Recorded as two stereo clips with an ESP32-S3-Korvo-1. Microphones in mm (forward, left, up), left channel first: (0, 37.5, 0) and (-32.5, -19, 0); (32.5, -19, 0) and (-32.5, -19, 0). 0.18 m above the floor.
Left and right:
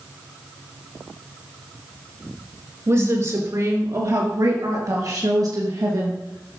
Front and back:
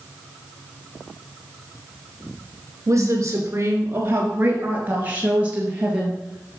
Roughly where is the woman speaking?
Behind right.